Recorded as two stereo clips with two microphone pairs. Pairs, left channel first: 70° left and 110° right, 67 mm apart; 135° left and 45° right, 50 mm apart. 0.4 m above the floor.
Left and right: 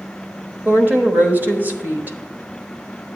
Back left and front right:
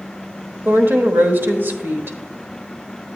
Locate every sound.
0.7 s a woman speaking: 60° right, 1.1 m